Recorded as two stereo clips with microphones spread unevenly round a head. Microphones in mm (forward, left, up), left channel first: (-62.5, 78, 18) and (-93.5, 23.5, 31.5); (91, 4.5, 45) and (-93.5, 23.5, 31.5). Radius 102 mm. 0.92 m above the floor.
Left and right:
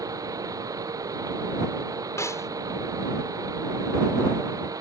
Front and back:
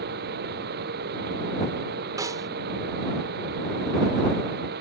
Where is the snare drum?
100° left.